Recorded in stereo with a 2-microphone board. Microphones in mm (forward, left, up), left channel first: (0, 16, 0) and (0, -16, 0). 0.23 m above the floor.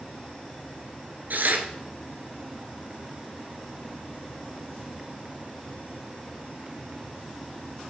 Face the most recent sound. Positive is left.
turn(degrees=-65)  # may be behind; listen again after turning